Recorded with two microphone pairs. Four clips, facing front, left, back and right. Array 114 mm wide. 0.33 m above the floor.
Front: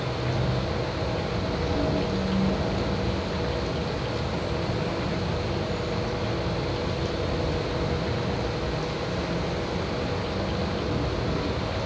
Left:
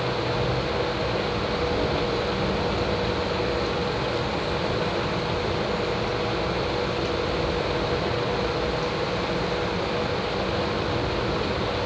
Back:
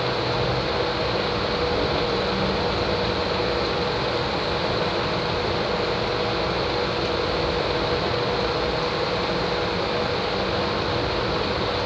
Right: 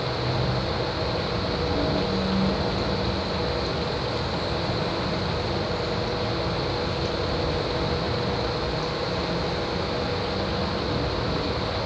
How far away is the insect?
About 9.5 m.